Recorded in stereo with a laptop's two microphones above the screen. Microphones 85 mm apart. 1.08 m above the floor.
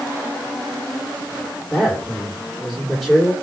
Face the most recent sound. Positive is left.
turn(degrees=0)  # may be behind; listen again after turning